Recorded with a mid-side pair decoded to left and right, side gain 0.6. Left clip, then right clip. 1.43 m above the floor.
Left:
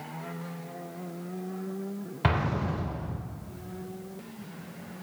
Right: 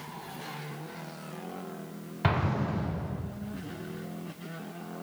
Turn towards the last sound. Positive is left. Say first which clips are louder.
# left 1 dB
turn(degrees=10)